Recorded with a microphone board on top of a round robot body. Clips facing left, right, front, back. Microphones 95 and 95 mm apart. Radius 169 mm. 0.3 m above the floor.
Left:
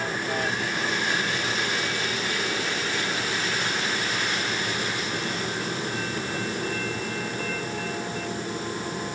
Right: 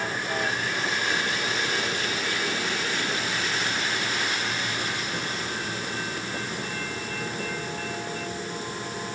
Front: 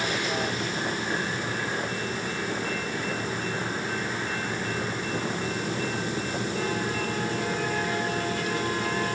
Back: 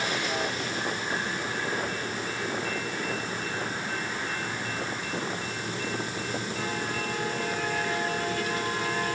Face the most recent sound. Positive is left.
No sound to turn to.